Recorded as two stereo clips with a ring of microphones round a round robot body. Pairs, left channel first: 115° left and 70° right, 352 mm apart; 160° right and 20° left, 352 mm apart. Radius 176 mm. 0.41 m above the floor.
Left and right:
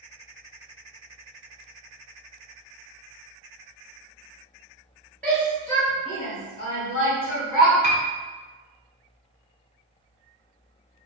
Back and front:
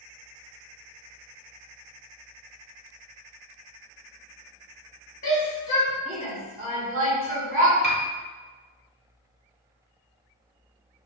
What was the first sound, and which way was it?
A shout, 170° right.